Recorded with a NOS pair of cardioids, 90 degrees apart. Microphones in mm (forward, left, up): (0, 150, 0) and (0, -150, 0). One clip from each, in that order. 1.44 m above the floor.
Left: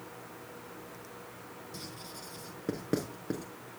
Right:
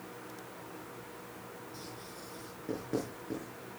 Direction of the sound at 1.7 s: 60° left.